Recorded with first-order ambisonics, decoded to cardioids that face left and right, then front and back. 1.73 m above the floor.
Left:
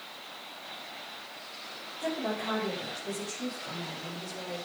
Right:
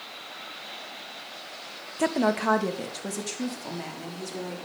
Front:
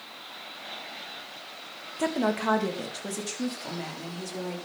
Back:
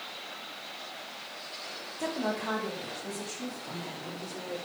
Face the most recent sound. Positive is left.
turn(degrees=-45)